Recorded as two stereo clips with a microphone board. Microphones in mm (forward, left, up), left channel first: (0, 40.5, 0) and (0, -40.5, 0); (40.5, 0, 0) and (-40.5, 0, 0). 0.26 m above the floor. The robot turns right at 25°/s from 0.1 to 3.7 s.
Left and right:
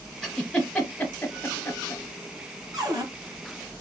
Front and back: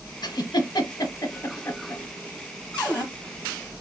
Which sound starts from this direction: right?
A cupboard door, at 2.7 s.